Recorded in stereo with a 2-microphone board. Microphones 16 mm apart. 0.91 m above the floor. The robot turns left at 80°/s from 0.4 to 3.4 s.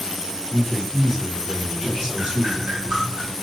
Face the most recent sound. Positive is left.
turn(degrees=-160)